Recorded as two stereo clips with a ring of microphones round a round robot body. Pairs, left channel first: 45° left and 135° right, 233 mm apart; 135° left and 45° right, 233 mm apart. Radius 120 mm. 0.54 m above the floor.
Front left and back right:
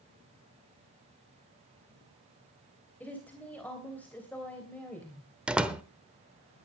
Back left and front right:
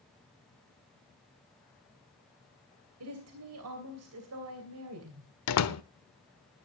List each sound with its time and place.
3.0 s a woman speaking: 40° right, 3 m
5.5 s a door slam: 140° left, 1.0 m